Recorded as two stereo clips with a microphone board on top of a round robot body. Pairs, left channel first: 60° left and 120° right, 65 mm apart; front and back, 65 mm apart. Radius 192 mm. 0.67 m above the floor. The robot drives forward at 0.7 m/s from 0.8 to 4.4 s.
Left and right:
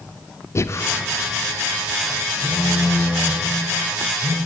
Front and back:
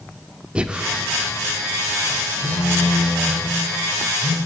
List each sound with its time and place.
0.6 s breathing: 105° left, 0.8 m; by 0.9 s 110° left, 0.8 m
2.4 s a phone buzzing: 175° right, 3 m; by 4.4 s straight behind, 4.5 m